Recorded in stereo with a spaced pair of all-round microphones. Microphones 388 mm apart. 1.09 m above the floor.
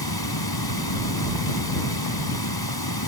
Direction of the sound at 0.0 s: 75° left (ahead or behind).